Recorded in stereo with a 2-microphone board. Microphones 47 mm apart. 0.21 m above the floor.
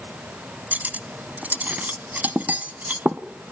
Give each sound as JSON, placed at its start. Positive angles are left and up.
{"t": 0.7, "sound": "cutlery clinking", "side_deg": -40, "distance_m": 1.0}